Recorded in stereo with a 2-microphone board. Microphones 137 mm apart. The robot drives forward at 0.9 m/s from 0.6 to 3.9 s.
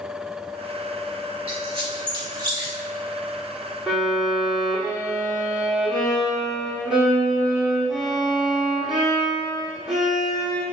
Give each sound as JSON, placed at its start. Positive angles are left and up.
{"t": 1.5, "sound": "a squeak", "side_deg": -45, "distance_m": 2.5}
{"t": 3.9, "sound": "a violin", "side_deg": -5, "distance_m": 3.5}